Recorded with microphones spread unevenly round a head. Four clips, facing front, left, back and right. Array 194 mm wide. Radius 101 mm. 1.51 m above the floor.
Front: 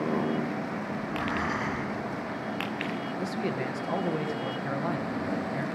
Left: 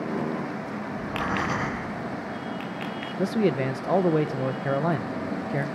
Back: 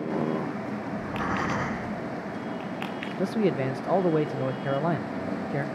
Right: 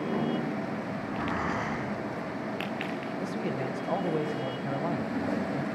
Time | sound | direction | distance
0.9 | breathing | 130° left | 8.5 m
3.2 | a man speaking | 120° left | 1.3 m